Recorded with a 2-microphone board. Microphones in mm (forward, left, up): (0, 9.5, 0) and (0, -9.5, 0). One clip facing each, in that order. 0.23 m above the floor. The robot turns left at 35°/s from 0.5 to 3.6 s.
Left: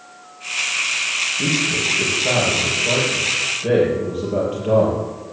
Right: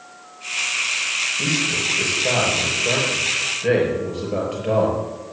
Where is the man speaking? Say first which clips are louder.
Left 2 dB; 35° right, 5.5 m; by 5.0 s 110° right, 5.5 m.